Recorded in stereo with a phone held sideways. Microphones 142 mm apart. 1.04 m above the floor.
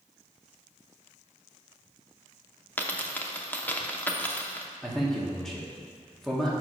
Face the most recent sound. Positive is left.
turn(degrees=5)  # may be behind; listen again after turning